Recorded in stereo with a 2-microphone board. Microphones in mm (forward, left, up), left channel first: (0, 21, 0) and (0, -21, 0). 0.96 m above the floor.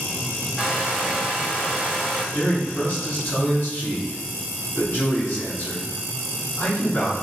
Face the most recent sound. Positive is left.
turn(degrees=70)  # may be behind; listen again after turning